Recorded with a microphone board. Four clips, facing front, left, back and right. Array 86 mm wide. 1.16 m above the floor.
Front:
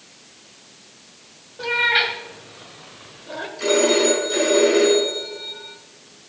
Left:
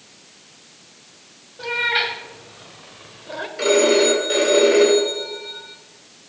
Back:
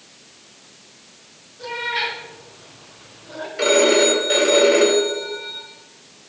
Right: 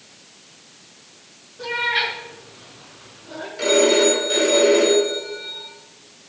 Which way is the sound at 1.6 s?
30° left.